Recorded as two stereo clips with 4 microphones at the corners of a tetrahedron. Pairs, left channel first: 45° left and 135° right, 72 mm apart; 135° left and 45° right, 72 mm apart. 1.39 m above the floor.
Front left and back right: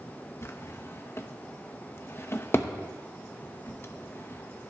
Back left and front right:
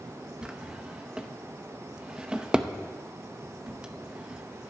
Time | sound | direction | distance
0.4 | a drawer | 30° left | 0.7 m